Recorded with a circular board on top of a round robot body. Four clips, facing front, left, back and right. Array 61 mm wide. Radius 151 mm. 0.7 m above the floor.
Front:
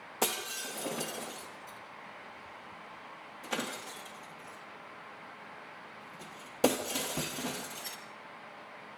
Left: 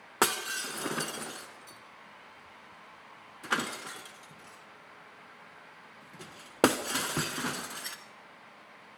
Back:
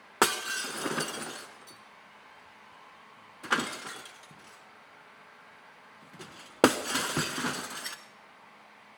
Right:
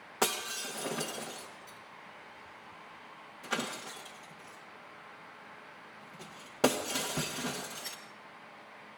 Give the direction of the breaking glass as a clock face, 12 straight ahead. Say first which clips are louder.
Left 4 dB, back 7 dB; 7 o'clock.